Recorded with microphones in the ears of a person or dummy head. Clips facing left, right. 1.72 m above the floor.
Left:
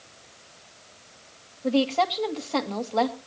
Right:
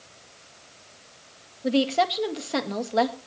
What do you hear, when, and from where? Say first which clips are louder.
1.6 s a woman speaking: even; 15° right (ahead or behind), 2 m